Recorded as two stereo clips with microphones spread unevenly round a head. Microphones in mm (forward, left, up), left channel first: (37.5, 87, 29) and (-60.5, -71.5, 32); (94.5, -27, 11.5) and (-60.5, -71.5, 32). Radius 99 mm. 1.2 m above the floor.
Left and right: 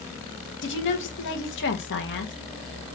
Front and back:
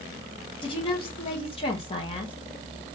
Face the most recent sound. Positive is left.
turn(degrees=75)